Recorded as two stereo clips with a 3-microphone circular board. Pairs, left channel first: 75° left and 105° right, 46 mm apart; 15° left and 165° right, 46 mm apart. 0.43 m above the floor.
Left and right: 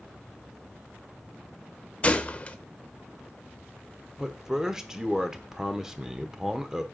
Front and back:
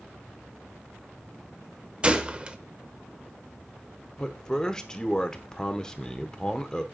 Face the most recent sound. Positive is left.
turn(degrees=-40)